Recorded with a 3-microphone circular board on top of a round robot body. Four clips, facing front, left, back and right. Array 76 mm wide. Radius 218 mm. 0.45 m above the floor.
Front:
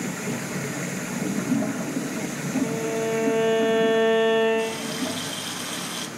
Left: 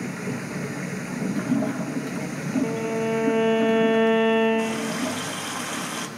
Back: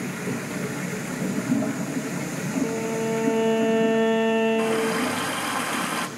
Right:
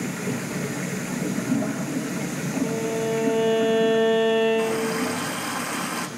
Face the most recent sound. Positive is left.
turn(degrees=-165)